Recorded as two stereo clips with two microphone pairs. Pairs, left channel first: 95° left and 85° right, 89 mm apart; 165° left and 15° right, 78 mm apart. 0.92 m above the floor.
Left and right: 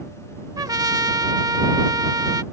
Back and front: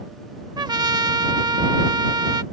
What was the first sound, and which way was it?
A trumpet, 40° right.